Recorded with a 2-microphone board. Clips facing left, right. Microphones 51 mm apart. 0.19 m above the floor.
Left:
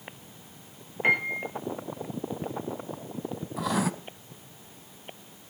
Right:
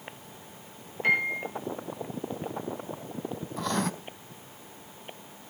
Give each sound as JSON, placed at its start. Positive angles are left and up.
{"t": 1.0, "sound": "a piano", "side_deg": 30, "distance_m": 5.5}
{"t": 3.6, "sound": "writing", "side_deg": 5, "distance_m": 0.7}